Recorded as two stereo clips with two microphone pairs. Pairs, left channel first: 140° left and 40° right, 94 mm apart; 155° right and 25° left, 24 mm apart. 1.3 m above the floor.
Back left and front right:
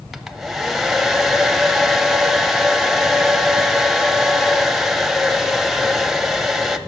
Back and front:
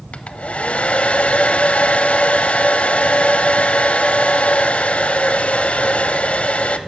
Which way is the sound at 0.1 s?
130° right.